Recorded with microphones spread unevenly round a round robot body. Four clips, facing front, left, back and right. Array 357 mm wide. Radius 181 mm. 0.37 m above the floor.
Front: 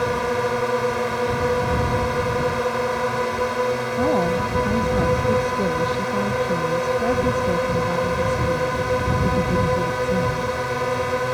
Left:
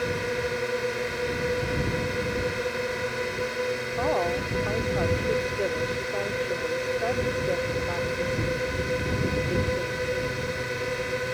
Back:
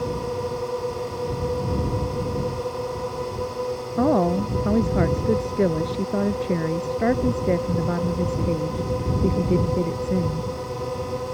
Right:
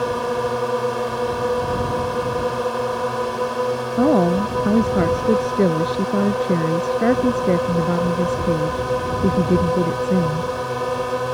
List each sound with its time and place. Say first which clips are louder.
0.0 s a drone: right 7 dB, front 5 dB; 45° right
4.0 s a woman speaking: right 10 dB, back 2 dB; 95° right